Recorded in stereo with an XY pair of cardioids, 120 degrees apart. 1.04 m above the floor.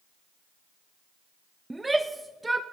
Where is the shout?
10° right, 0.6 m.